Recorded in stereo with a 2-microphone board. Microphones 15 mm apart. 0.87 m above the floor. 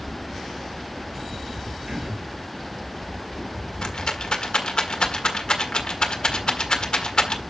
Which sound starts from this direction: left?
A rattle, at 3.8 s.